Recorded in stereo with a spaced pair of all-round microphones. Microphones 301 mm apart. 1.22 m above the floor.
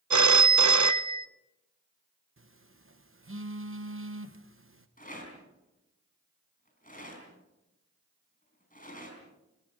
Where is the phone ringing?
70° right (ahead or behind), 0.5 m.